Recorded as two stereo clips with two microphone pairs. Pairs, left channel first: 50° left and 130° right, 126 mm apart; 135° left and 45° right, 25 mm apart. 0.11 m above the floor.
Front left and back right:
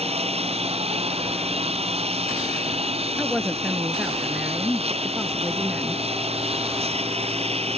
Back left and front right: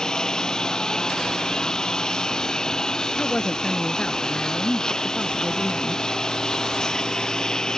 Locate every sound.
0.0 s a lawn mower: 165° right
3.2 s a woman speaking: 150° left